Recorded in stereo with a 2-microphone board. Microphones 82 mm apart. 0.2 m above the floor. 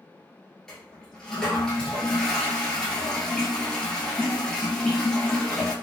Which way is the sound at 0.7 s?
10° left (ahead or behind).